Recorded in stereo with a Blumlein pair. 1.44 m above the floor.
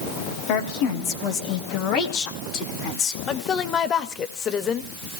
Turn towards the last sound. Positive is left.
turn(degrees=25)